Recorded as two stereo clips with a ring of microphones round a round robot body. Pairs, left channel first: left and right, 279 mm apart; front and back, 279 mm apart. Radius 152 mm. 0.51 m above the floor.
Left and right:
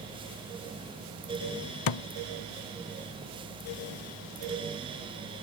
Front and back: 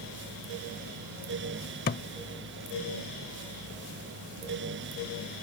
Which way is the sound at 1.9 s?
65° left.